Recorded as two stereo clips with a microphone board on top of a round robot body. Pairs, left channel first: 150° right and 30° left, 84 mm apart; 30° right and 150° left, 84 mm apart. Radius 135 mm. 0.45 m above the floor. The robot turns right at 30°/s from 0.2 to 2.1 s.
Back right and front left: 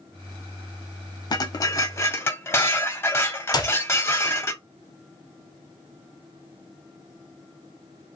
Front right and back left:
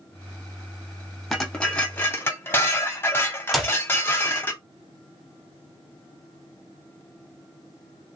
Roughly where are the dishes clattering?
Behind right.